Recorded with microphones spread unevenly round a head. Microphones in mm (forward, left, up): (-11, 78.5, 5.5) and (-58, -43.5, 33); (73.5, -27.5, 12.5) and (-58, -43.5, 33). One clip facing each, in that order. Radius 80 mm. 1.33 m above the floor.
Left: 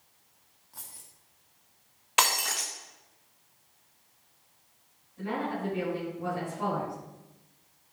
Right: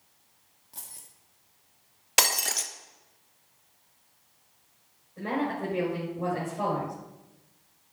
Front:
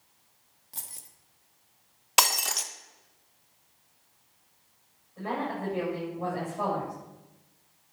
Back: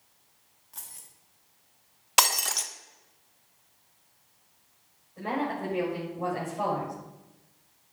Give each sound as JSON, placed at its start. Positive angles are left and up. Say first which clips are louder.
{"t": 0.7, "sound": "keys jangling", "louder": "right 1 dB, front 2 dB", "azimuth_deg": -45, "distance_m": 1.4}
{"t": 2.2, "sound": "breaking glass", "louder": "left 2 dB, even", "azimuth_deg": -90, "distance_m": 0.7}
{"t": 5.2, "sound": "a woman speaking", "louder": "right 3 dB, back 2 dB", "azimuth_deg": -90, "distance_m": 7.0}